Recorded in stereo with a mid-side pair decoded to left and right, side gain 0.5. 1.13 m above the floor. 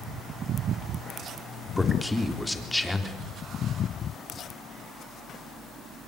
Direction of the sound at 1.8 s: 10° left.